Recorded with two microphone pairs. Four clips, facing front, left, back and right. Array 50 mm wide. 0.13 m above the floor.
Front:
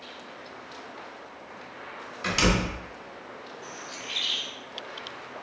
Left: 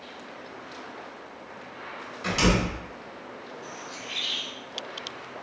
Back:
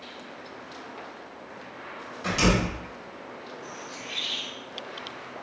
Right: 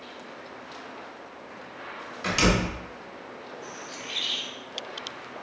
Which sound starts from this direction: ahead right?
A door slam, at 2.2 s.